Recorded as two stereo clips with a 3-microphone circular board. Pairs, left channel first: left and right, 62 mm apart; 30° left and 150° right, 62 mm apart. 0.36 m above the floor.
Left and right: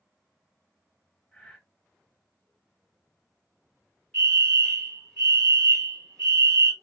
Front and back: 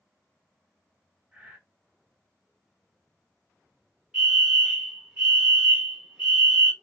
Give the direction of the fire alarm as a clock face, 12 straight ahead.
7 o'clock.